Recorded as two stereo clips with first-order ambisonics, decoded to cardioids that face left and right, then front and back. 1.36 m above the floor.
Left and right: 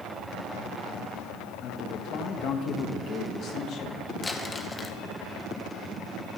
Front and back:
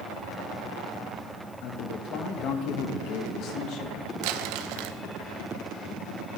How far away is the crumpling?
About 0.9 m.